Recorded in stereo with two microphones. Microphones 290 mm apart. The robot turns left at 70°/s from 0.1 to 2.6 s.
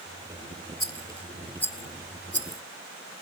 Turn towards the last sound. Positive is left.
turn(degrees=70)  # may be behind; listen again after turning